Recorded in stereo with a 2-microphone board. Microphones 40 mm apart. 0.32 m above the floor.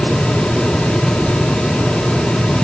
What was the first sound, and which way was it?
Only background noise.